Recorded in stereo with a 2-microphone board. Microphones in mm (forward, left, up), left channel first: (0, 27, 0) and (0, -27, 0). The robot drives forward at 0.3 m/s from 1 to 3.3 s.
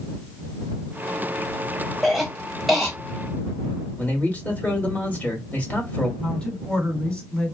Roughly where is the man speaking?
Left.